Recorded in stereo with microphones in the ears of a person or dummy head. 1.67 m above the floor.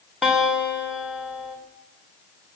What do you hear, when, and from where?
0.2 s a guitar: 5° right (ahead or behind), 7.5 m